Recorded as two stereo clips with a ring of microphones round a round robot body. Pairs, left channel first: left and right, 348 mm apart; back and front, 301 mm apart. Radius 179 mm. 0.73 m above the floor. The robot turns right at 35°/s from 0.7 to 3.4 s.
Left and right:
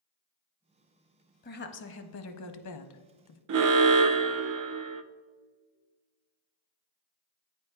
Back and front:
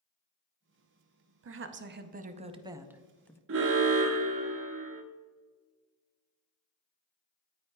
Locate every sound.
1.4 s a woman speaking: 30° left, 0.8 m; by 3.4 s 100° left, 0.8 m
3.5 s an alarm: 50° right, 0.5 m